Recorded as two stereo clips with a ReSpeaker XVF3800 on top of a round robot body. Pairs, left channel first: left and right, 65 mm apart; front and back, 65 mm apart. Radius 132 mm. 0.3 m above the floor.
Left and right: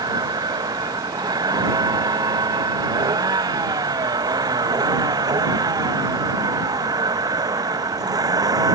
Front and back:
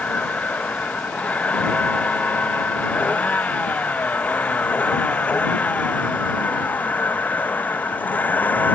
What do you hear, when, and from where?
0.0 s a vehicle: 70° right; by 8.8 s 65° right